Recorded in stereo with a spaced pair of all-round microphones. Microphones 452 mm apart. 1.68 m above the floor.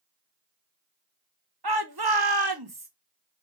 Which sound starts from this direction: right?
A shout, at 1.6 s.